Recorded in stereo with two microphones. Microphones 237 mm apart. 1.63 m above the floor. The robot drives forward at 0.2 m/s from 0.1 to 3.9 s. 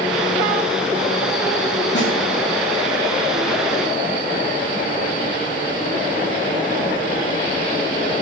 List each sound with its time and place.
1.9 s a snare drum: 50° left (ahead or behind), 0.6 m